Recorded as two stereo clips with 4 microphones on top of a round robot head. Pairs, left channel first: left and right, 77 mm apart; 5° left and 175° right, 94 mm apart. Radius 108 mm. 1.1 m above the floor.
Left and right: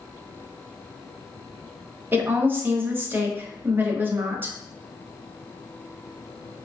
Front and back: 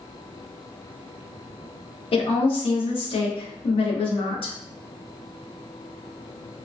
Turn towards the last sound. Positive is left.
turn(degrees=-25)